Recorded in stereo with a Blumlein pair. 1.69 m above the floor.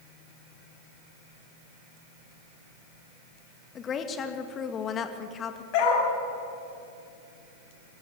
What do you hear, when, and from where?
3.8 s a woman speaking: 25° left, 2.0 m
5.7 s a dog barking: 45° left, 4.5 m